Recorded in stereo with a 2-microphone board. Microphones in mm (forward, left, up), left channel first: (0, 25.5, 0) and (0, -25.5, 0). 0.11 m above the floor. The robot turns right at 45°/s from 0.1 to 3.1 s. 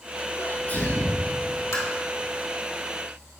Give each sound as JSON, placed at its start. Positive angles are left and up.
{"t": 0.4, "sound": "a sneeze", "azimuth_deg": 95, "distance_m": 1.3}
{"t": 1.7, "sound": "tapping", "side_deg": 65, "distance_m": 2.0}